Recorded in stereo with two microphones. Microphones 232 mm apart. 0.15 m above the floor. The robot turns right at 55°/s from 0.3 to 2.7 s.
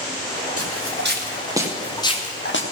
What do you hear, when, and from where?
0.6 s footsteps: 75° right (ahead or behind), 3 m; by 2.6 s 55° left (ahead or behind), 1.6 m